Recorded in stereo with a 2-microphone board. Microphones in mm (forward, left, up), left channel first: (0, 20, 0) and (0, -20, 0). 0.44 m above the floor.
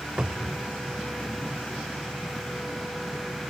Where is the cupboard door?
25° right (ahead or behind), 0.8 m.